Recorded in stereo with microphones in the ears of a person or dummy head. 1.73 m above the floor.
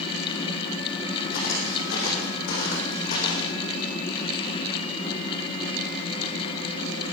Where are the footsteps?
50° left (ahead or behind), 4 m; by 3.5 s 40° left (ahead or behind), 5 m.